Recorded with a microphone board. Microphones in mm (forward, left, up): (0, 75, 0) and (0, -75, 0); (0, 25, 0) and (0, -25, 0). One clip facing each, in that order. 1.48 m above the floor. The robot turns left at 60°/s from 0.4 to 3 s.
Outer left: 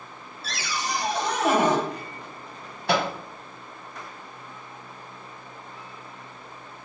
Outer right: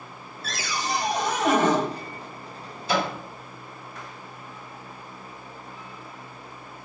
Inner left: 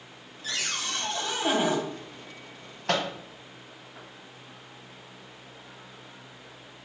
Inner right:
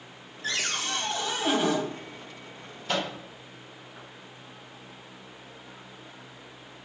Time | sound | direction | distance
0.4 | a cupboard door | 120° right | 0.9 m
2.9 | a microwave | 70° left (ahead or behind) | 0.9 m